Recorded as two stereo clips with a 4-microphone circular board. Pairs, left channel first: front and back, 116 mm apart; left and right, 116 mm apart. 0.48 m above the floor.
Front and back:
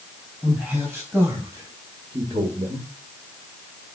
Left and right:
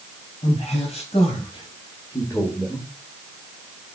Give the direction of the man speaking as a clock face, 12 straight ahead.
9 o'clock.